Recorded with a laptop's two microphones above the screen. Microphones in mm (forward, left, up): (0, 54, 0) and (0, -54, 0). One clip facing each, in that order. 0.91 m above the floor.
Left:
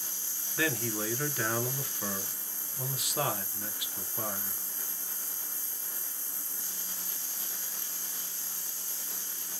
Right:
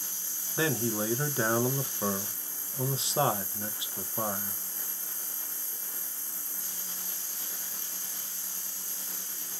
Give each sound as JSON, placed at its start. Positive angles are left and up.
{"t": 0.6, "sound": "a man speaking", "side_deg": -25, "distance_m": 0.6}